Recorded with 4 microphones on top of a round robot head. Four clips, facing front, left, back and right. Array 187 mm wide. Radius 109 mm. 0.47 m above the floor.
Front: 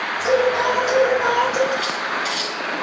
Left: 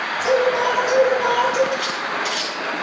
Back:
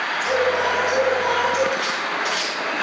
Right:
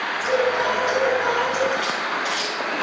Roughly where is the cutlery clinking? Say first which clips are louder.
Even, front 1 dB; ahead left.